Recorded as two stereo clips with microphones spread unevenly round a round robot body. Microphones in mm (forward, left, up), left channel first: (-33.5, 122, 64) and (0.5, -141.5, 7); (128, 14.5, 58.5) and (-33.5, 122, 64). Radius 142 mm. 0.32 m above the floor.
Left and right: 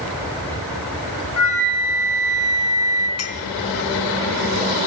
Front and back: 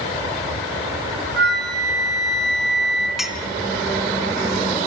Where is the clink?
60° left, 3 m.